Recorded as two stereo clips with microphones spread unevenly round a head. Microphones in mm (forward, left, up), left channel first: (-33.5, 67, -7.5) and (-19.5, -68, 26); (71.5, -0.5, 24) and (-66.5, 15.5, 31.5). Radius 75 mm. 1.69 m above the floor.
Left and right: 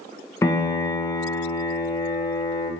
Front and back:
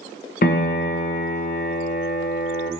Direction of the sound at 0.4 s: 15° left.